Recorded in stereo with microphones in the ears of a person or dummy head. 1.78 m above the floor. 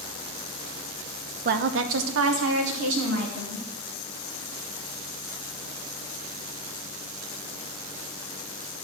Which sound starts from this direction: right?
A woman speaking, at 1.4 s.